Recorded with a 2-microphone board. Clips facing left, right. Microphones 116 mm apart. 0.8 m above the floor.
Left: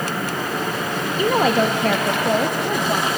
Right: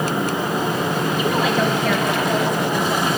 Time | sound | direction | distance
1.2 | a woman speaking | 40° left (ahead or behind) | 1.2 m